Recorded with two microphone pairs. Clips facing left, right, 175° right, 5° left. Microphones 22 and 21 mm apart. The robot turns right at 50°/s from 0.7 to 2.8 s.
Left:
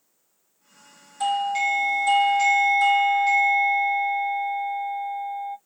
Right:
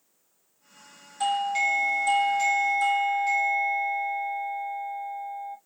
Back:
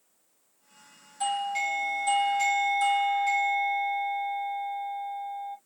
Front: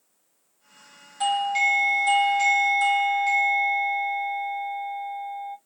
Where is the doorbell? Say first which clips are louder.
Left 2 dB, front 6 dB; 15° right, 1.0 m; by 5.6 s 65° left, 1.0 m.